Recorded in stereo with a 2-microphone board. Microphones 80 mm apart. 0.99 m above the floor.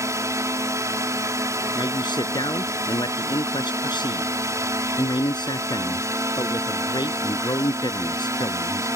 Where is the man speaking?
70° left (ahead or behind).